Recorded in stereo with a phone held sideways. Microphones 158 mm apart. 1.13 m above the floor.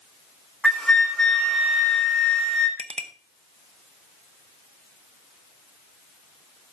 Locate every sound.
0.6 s a flute: 5° left (ahead or behind), 1.5 m
2.8 s a clink: 40° right (ahead or behind), 0.7 m